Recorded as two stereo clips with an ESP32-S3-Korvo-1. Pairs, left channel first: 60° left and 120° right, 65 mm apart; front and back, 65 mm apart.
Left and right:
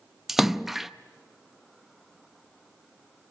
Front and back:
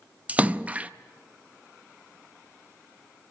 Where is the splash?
165° left, 0.6 m.